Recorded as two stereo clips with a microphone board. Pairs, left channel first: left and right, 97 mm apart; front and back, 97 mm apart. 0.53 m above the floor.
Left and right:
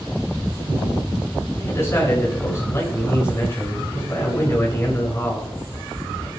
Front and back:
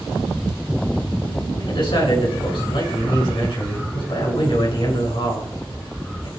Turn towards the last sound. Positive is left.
turn(degrees=30)